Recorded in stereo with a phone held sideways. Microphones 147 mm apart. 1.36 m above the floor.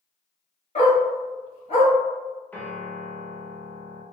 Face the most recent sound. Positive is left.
turn(degrees=10)  # may be behind; listen again after turning